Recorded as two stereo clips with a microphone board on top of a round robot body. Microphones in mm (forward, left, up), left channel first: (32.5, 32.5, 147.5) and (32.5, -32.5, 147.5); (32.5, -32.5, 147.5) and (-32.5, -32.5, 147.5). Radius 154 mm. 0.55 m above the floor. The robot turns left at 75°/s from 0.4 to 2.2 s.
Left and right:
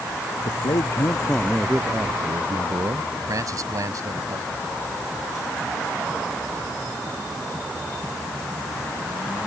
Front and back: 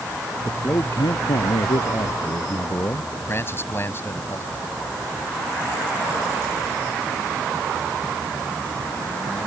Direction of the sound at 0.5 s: 80° left.